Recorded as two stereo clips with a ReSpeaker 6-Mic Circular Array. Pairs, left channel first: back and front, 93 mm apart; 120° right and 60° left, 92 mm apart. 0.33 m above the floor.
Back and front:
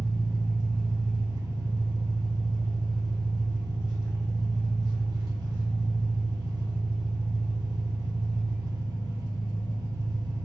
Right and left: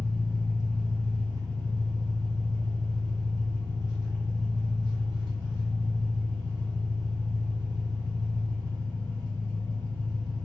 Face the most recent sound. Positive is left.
turn(degrees=20)